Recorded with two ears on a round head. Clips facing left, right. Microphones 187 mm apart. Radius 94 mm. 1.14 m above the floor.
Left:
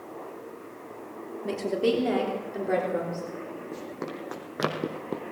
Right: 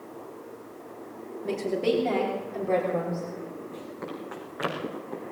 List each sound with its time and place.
1.4 s a woman speaking: 5° left (ahead or behind), 2.5 m; by 3.2 s 15° left (ahead or behind), 4 m
3.7 s running footsteps: 55° left (ahead or behind), 4 m